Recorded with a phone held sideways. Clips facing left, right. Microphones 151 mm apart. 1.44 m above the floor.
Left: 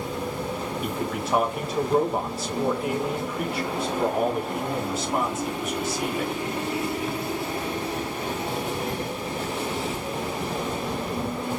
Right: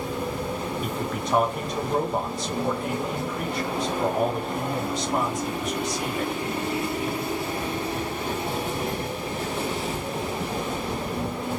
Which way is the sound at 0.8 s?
5° left (ahead or behind).